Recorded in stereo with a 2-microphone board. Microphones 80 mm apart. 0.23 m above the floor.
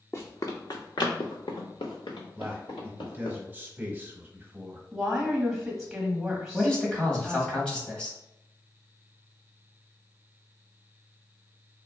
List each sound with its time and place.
0.1 s running footsteps: 35° left (ahead or behind), 0.8 m; by 3.4 s 80° left, 2 m
2.4 s a man speaking: 20° right (ahead or behind), 1.0 m
4.9 s a woman speaking: centre (ahead or behind), 1.4 m
6.5 s a man speaking: 10° left (ahead or behind), 1.0 m